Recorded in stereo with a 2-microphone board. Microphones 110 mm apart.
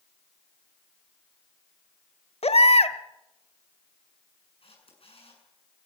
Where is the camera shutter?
70° left (ahead or behind), 7 m.